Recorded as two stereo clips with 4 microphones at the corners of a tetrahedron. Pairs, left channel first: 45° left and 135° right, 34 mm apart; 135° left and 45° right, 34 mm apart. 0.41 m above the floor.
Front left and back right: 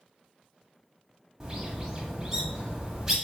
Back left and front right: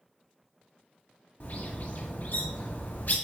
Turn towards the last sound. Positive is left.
turn(degrees=150)